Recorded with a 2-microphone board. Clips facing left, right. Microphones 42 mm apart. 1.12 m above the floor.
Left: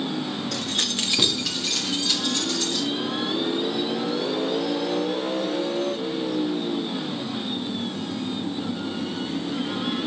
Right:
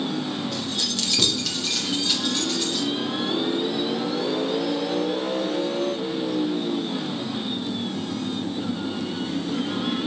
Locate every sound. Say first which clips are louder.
0.5 s keys jangling: left 1 dB; 80° left, 0.5 m; by 2.9 s 15° right (ahead or behind), 1.9 m